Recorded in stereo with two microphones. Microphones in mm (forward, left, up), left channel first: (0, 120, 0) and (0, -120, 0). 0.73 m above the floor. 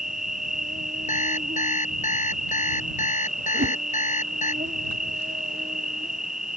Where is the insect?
35° right (ahead or behind).